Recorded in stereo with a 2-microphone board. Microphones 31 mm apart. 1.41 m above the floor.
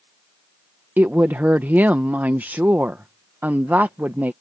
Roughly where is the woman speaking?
Right.